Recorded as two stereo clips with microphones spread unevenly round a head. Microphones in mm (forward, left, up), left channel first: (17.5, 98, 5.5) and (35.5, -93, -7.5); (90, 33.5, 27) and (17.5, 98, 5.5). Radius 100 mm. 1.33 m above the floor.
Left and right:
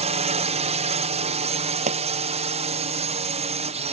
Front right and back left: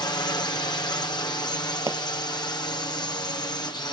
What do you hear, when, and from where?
0.0 s a drone: 75° right
1.9 s a pop: 145° right